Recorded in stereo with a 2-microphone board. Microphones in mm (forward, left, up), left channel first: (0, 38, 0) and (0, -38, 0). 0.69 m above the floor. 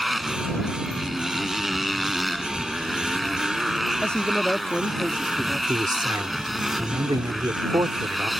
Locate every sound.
0.0 s a motorcycle: centre (ahead or behind)
4.0 s a man speaking: 10° left (ahead or behind)
5.7 s a man speaking: 60° right (ahead or behind)